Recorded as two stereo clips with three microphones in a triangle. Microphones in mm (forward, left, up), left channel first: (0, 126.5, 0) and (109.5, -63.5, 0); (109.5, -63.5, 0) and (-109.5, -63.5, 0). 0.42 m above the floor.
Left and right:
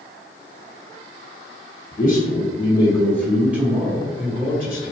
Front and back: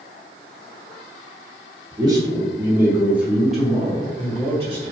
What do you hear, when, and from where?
1.9 s a man speaking: 120° left, 1.3 m; by 4.9 s 70° right, 1.4 m